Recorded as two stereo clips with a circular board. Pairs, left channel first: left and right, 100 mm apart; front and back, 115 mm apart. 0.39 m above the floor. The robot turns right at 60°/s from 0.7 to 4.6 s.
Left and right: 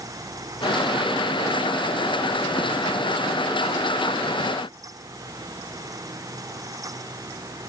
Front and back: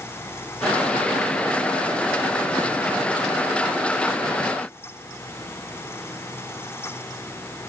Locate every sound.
Only background noise.